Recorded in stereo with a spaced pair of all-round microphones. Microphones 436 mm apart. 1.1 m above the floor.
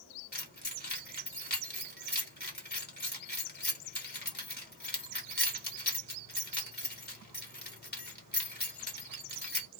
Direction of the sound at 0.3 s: 20° left (ahead or behind).